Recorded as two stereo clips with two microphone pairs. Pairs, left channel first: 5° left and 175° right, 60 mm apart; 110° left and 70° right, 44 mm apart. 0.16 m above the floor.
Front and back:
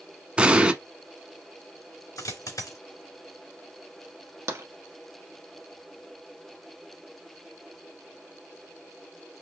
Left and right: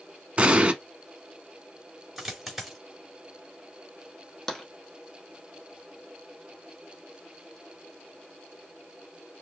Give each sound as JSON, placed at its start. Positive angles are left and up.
{"t": 0.4, "sound": "an explosion", "azimuth_deg": -115, "distance_m": 0.8}
{"t": 2.2, "sound": "a dropped coin", "azimuth_deg": 15, "distance_m": 3.5}
{"t": 4.5, "sound": "tapping", "azimuth_deg": -175, "distance_m": 1.1}